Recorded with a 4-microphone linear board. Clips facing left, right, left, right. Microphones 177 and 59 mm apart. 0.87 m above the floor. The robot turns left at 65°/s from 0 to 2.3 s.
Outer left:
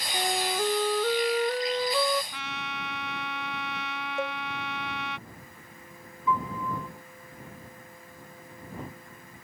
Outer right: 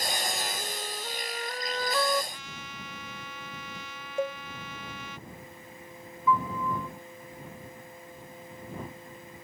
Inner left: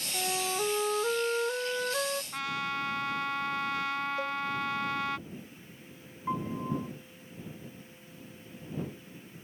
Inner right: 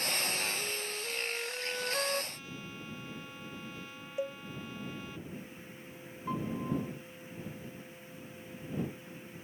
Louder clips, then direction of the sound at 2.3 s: Outer left 7 dB, inner left 12 dB; 80° left.